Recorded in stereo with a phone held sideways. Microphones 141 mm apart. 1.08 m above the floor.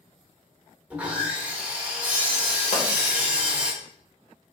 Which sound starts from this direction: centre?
Sawing, at 0.9 s.